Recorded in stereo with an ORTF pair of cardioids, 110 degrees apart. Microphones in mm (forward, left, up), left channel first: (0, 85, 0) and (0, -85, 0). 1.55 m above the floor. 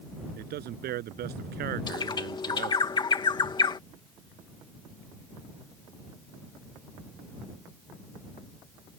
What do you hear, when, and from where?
0.4 s a man speaking: 70° right; by 2.9 s 65° right
1.9 s a bird: 25° left